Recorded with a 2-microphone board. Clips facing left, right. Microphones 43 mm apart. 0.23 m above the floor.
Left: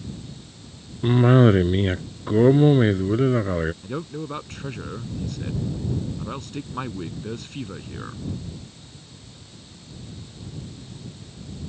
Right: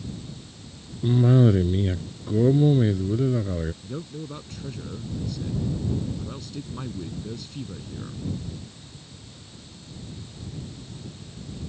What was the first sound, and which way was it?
A cough, 55° left (ahead or behind).